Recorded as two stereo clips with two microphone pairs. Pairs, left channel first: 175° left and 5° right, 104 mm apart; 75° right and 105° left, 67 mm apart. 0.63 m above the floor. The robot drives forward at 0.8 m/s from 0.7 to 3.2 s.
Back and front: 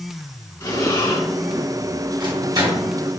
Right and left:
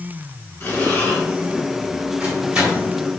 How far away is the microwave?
About 3 m.